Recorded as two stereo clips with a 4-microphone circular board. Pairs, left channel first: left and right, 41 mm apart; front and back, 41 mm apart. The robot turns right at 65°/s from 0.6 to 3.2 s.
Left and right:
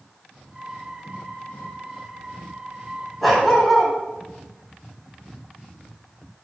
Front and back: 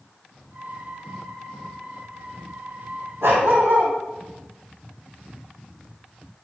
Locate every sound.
3.2 s a dog barking: straight behind, 3.5 m